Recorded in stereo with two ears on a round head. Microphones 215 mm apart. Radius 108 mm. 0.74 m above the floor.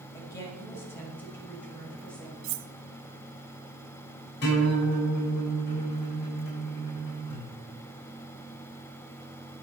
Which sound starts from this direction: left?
A guitar, at 4.4 s.